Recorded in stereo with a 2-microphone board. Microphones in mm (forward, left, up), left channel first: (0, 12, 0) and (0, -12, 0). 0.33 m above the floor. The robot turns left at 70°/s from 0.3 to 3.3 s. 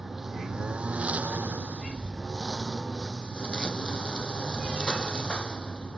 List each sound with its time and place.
0.0 s a lawn mower: 15° right; by 6.0 s 135° left